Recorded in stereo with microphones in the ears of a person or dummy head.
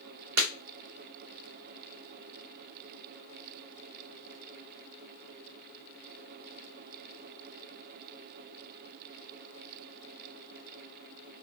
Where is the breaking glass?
65° right (ahead or behind), 2.5 m.